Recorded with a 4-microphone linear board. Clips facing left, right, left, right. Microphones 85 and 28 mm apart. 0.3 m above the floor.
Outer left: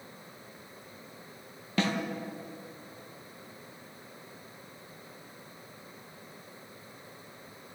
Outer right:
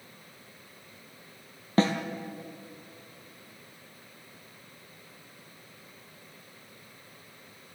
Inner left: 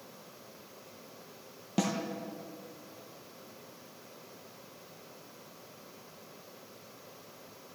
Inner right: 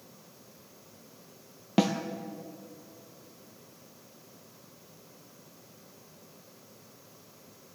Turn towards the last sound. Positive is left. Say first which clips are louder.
# outer right 5 dB, inner right 6 dB
turn(degrees=-35)  # may be behind; listen again after turning